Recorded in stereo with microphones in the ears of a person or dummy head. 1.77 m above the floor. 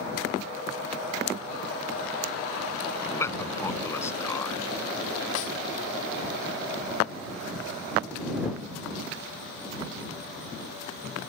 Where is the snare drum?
75° left (ahead or behind).